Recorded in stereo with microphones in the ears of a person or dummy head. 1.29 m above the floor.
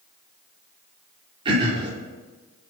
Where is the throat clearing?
30° right (ahead or behind), 4 m.